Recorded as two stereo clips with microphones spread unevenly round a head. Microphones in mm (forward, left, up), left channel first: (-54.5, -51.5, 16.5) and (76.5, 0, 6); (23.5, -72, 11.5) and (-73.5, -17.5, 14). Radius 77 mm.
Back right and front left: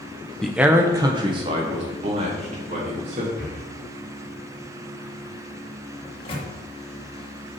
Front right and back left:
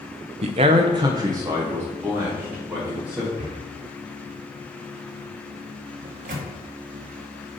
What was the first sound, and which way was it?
A man speaking, 115° left.